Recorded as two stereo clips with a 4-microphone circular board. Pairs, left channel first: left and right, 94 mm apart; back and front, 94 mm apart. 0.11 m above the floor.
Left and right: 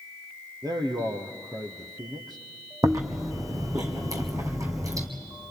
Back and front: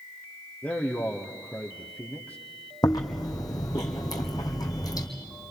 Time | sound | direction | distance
0.6 | a man speaking | 110° right | 1.8 m
2.8 | chewing | 140° right | 2.0 m